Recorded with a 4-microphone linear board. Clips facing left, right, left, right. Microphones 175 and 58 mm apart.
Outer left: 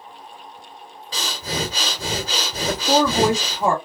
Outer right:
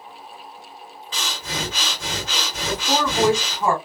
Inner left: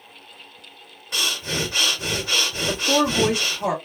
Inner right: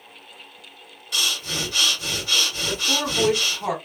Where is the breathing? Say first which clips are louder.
Outer left 3 dB, inner left 1 dB; 35° left (ahead or behind), 1.1 m.